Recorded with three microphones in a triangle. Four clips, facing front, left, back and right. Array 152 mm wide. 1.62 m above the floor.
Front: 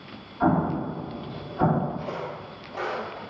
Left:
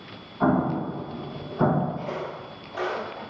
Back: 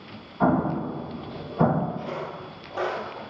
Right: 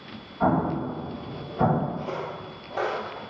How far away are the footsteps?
About 1.8 m.